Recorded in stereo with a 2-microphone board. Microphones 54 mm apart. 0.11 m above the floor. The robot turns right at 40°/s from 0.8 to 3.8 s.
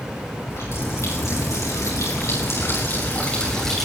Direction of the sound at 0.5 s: 55° left.